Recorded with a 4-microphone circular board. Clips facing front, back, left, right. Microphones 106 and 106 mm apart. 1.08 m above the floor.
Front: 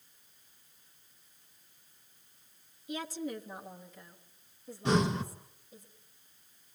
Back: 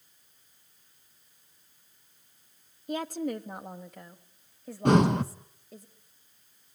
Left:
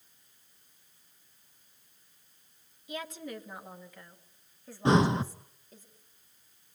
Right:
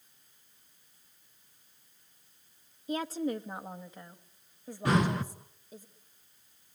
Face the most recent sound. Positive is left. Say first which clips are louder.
# back 7 dB, left 4 dB
turn(degrees=155)